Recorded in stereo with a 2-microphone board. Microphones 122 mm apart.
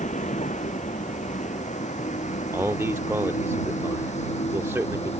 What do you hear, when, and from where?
0.0 s a vehicle: 90° left; by 5.2 s 65° left (ahead or behind)
2.5 s a man speaking: 20° right (ahead or behind)